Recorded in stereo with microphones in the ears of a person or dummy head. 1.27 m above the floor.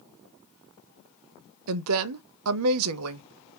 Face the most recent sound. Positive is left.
turn(degrees=-80)